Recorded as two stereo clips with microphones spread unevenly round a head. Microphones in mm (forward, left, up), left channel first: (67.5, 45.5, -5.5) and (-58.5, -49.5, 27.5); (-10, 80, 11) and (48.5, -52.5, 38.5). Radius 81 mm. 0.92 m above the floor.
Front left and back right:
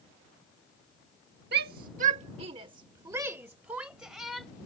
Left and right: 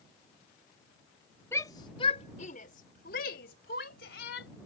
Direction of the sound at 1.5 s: 170° right.